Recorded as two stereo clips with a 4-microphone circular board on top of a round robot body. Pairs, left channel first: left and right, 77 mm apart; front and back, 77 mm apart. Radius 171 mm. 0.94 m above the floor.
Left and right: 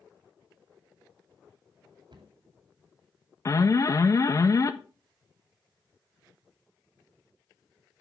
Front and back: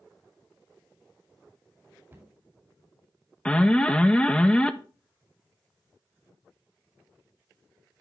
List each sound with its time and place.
2.1 s a cupboard door: 110° right, 2.5 m
3.5 s an alarm: 70° left, 0.9 m